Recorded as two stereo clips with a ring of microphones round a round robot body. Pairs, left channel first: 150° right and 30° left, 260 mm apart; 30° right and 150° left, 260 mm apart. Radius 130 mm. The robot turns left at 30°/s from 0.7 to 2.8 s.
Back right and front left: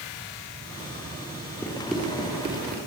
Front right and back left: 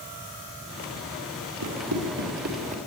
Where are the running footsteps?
130° left, 5 m; by 2.8 s 85° left, 4 m.